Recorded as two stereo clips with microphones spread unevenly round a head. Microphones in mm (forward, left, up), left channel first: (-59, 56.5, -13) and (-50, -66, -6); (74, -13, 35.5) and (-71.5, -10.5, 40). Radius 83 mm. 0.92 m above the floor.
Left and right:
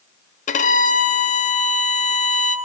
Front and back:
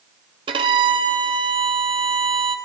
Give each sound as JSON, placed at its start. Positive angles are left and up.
{"t": 0.5, "sound": "a violin", "azimuth_deg": 120, "distance_m": 0.6}